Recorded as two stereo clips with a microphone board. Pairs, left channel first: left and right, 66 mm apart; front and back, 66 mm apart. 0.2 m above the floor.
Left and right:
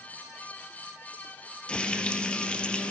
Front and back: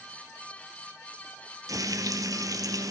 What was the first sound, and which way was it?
Frying, 165° left.